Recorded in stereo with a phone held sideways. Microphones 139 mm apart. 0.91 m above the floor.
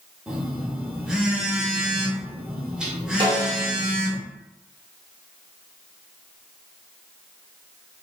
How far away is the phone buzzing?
About 0.7 m.